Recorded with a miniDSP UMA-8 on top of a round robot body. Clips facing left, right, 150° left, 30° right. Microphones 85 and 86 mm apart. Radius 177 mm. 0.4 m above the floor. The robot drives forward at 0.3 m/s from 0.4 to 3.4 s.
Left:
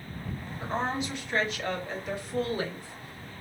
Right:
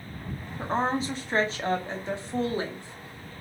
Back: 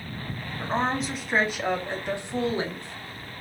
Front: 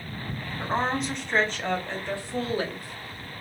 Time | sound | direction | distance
0.6 | a woman speaking | 110° right | 0.9 m